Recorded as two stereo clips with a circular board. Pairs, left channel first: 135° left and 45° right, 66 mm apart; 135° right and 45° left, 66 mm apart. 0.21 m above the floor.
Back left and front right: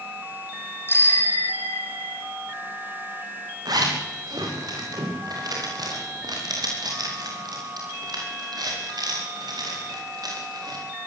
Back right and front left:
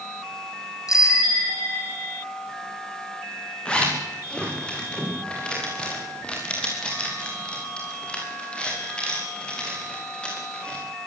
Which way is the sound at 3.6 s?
60° right.